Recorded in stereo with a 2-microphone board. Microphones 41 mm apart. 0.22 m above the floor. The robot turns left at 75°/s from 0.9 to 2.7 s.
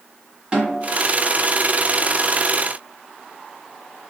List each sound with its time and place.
0.5 s a snare drum: 30° right (ahead or behind), 1.2 m; by 0.9 s 25° right (ahead or behind), 1.2 m